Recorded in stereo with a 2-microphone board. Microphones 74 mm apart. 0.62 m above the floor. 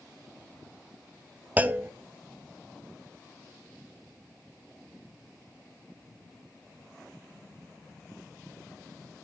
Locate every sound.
1.6 s a clunk: 25° right (ahead or behind), 0.6 m